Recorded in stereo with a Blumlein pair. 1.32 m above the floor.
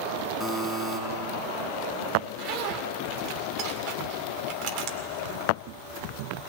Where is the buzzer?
10° left, 5.5 m.